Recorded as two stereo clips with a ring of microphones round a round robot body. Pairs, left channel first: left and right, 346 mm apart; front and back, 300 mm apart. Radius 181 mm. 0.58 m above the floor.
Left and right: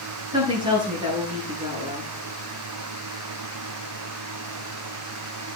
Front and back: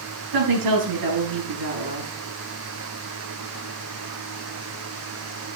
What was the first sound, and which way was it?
A woman speaking, 165° right.